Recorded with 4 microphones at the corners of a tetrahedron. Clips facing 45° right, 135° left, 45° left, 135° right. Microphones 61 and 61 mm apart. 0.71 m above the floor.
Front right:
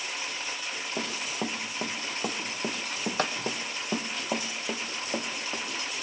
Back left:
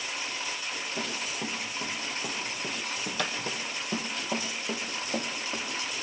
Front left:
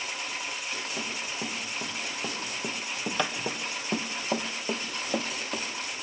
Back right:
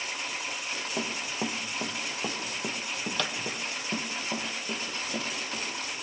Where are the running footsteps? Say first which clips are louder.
Front right 3 dB, back right 2 dB; 80° right, 1.6 m; by 5.7 s 35° left, 2 m.